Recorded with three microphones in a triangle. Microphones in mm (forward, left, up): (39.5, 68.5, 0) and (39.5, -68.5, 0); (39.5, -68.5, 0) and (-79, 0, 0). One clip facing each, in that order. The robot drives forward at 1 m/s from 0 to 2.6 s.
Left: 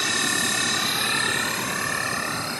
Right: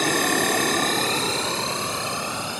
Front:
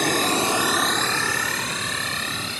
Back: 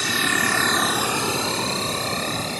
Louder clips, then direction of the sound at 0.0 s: Right 7 dB, front 4 dB; 55° right.